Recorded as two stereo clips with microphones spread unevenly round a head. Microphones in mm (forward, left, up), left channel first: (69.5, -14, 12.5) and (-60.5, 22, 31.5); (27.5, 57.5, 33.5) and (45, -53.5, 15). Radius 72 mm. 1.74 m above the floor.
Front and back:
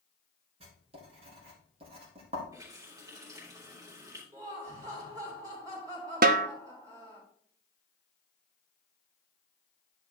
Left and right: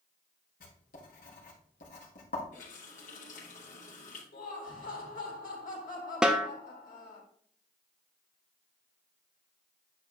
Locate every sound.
0.6 s writing: 115° left, 2.5 m
2.5 s a running tap: 105° left, 3 m
4.3 s laughter: 100° left, 3.5 m
6.2 s a snare drum: 170° right, 0.6 m